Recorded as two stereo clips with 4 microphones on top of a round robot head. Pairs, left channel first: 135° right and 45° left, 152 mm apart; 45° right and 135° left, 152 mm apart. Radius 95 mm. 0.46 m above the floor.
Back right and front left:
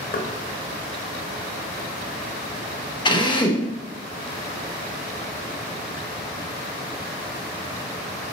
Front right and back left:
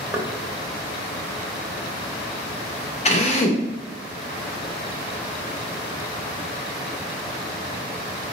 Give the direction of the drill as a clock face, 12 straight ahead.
3 o'clock.